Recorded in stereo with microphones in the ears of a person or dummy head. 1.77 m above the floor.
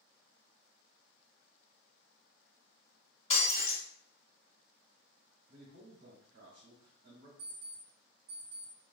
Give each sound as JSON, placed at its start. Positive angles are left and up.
{"t": 3.3, "sound": "breaking glass", "side_deg": 30, "distance_m": 1.9}
{"t": 5.5, "sound": "a man speaking", "side_deg": -50, "distance_m": 0.8}
{"t": 7.4, "sound": "an alarm clock", "side_deg": -15, "distance_m": 1.9}